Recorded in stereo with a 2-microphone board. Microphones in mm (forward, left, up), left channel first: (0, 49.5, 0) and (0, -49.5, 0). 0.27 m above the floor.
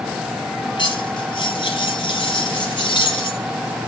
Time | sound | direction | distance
0.8 | cutlery clinking | 50° left (ahead or behind) | 3.5 m